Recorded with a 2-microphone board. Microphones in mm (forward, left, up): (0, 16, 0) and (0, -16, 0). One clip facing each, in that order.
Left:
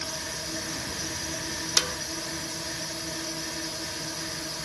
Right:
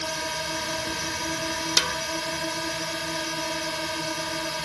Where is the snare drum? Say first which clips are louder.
Right 3 dB; 30° right (ahead or behind).